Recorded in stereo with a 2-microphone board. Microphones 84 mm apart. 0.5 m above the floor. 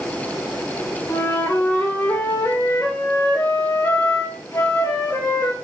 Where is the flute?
30° left (ahead or behind), 2 m.